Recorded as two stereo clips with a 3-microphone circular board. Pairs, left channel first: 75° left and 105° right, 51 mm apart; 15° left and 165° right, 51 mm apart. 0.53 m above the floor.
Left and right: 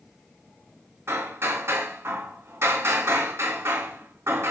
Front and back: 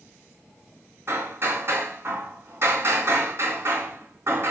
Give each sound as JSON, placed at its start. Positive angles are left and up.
{"t": 1.1, "sound": "hammering", "azimuth_deg": -135, "distance_m": 3.0}